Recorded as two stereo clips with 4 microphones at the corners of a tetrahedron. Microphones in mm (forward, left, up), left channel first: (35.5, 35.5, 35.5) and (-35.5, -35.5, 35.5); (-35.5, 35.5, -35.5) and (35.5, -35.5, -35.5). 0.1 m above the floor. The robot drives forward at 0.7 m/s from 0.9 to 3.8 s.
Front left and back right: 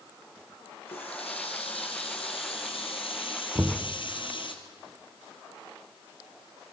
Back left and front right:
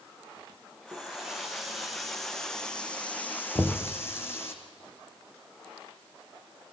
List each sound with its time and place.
0.9 s a running tap: 35° left, 3.5 m; by 4.5 s 70° left, 2.5 m
3.5 s knocking: 175° right, 1.2 m